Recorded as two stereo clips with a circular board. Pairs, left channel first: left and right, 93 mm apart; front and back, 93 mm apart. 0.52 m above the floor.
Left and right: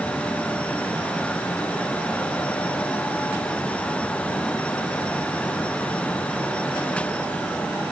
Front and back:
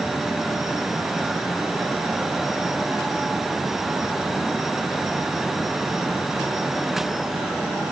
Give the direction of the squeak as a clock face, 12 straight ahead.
No squeak in this recording.